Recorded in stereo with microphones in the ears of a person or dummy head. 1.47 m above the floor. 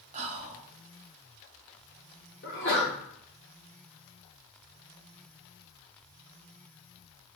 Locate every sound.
0.1 s whispering: 40° right (ahead or behind), 0.5 m
2.4 s a sneeze: 55° left (ahead or behind), 0.8 m